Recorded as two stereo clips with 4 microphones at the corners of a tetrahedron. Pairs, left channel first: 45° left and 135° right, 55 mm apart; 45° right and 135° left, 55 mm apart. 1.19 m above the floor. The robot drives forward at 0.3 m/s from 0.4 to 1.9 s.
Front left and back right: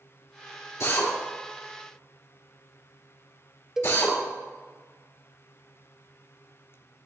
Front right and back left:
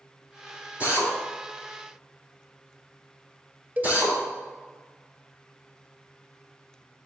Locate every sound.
0.8 s a drill: 70° left, 4 m; by 4.2 s 75° left, 3.5 m
3.8 s a cowbell: 150° left, 0.8 m